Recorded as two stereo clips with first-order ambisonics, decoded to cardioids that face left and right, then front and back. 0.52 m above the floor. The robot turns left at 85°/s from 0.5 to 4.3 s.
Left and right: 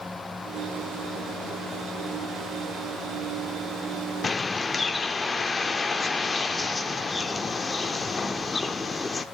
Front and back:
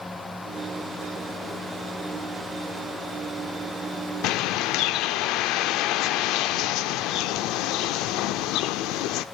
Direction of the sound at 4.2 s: 20° left.